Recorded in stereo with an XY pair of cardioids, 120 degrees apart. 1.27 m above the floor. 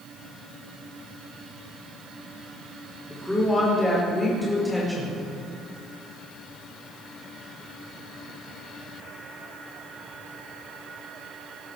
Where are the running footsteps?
I don't hear running footsteps.